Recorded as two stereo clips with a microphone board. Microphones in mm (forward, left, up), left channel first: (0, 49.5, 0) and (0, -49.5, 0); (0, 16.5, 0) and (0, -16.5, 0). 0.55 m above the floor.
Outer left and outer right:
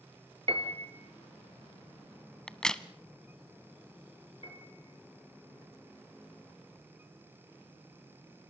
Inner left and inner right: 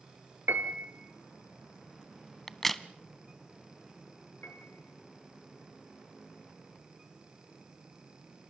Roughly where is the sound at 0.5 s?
Right.